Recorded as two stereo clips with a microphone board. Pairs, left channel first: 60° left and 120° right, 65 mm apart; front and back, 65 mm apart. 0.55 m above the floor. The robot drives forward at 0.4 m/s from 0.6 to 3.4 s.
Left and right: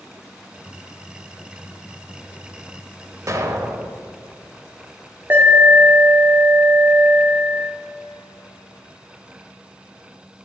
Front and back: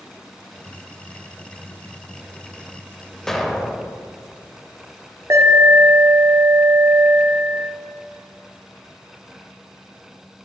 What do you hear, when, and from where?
3.3 s an explosion: 85° right, 0.7 m; by 4.0 s 90° right, 0.7 m
5.3 s an alarm: 165° right, 1.2 m